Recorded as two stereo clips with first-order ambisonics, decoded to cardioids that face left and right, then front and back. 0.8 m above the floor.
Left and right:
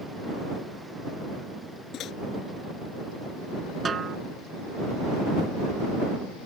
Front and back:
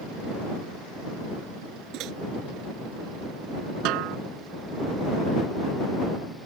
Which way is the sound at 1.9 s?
140° left.